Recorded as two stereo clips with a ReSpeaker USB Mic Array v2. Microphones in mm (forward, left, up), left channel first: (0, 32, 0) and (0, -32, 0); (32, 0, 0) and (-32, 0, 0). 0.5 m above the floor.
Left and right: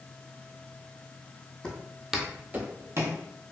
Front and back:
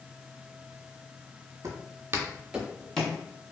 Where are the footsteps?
165° left, 0.8 m; by 3.2 s 65° right, 0.7 m.